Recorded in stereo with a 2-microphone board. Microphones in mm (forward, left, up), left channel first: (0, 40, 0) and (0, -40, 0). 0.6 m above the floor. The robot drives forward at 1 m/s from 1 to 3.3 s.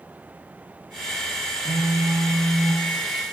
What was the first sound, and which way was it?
A phone buzzing, 85° right.